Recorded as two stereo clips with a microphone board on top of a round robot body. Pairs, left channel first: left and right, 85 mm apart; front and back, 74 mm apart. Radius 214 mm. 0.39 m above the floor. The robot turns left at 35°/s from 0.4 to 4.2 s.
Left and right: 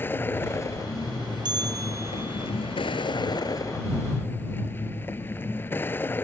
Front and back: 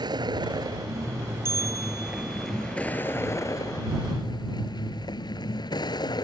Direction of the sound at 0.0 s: 155° left.